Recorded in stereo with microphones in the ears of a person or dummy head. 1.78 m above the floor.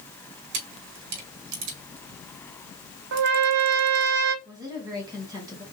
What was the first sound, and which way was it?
A camera shutter, 60° right (ahead or behind).